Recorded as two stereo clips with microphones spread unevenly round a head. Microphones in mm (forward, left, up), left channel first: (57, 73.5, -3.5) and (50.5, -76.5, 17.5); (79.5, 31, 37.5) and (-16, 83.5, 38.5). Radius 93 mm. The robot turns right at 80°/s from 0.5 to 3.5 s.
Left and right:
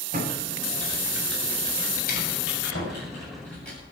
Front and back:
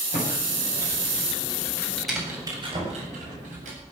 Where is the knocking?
105° left, 8 m; by 3.0 s 130° left, 8 m.